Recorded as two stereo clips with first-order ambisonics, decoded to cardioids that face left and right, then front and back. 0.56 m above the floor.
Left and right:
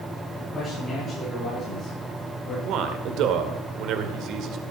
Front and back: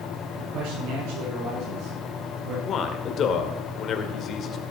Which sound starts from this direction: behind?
A man speaking, at 0.4 s.